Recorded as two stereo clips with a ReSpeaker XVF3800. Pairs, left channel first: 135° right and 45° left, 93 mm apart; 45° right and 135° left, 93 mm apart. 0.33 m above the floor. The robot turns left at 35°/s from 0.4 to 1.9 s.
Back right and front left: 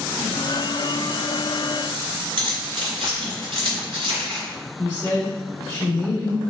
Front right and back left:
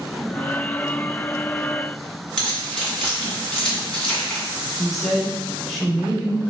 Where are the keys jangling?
40° left, 2.0 m.